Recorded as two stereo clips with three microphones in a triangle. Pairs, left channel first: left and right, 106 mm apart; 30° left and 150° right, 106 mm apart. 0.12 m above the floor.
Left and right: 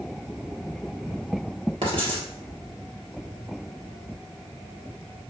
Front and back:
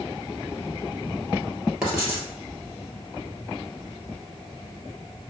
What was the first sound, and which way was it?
Writing, 70° right.